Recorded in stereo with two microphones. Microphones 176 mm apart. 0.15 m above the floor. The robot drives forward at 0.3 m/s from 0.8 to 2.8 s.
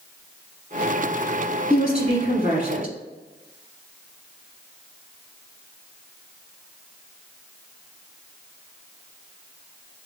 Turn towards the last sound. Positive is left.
turn(degrees=-35)  # may be behind; listen again after turning